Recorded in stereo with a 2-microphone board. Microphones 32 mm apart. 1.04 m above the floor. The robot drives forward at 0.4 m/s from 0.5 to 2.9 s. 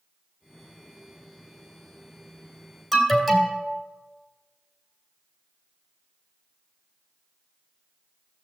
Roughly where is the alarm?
Centre.